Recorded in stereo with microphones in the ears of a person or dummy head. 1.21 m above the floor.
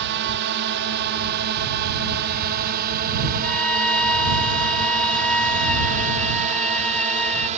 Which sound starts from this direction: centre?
A violin, at 3.4 s.